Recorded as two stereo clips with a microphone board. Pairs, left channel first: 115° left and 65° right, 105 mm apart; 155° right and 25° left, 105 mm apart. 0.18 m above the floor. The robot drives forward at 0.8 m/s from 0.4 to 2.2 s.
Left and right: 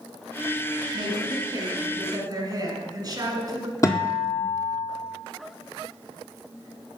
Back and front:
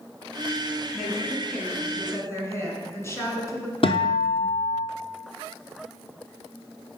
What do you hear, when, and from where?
0.9 s a woman speaking: 65° right, 2 m; by 3.7 s 105° right, 2.0 m
3.8 s a guitar: 170° left, 1.1 m